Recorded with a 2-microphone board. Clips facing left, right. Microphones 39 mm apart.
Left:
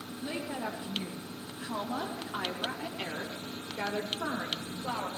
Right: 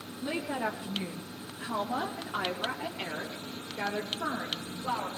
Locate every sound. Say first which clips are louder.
0.2 s a woman speaking: right 4 dB; 30° right (ahead or behind), 1.2 m; by 5.1 s 5° left (ahead or behind), 3 m